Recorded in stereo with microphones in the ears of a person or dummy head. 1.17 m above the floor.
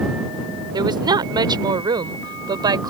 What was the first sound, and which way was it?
A woman speaking, 25° right (ahead or behind).